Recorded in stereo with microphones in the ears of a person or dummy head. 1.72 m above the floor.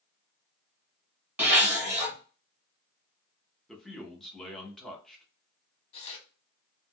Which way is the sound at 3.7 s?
5° left (ahead or behind).